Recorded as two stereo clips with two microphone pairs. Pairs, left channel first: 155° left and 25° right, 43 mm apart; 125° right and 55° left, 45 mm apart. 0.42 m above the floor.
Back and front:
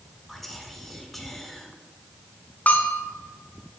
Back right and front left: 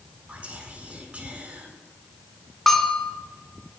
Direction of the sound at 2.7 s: 155° left.